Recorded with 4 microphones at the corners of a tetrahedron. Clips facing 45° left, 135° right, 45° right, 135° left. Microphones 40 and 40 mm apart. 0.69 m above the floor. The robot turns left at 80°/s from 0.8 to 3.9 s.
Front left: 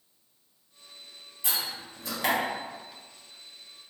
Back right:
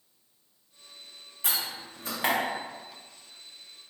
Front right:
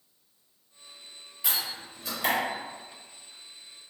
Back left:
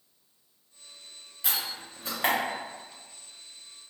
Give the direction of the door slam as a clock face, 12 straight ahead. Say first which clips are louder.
Even, front right 1 dB; 4 o'clock.